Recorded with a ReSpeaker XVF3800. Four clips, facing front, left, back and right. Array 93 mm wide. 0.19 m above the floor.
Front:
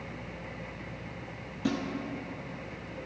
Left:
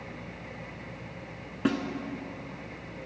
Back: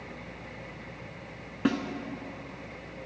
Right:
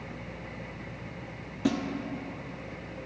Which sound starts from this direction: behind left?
A snare drum, at 1.6 s.